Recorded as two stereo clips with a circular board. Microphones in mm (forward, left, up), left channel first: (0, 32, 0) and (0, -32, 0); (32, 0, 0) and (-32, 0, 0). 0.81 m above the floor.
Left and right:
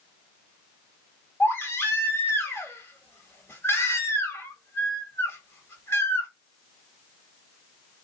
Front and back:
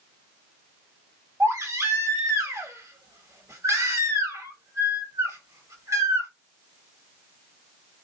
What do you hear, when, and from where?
1.4 s a baby crying: 140° left, 1.6 m